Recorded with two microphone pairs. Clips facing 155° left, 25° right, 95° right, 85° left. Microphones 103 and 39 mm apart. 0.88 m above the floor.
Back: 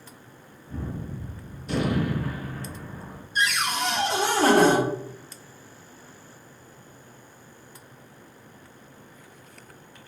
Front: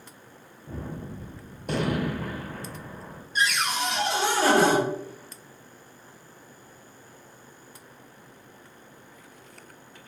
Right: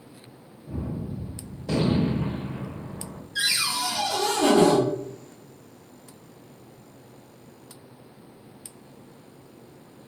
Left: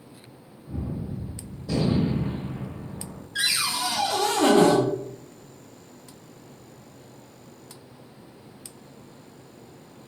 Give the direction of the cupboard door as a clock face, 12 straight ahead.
8 o'clock.